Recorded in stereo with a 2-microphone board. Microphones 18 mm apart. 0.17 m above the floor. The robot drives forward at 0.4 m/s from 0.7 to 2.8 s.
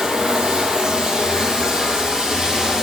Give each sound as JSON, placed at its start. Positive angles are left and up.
{"t": 0.0, "sound": "running water", "side_deg": -55, "distance_m": 2.5}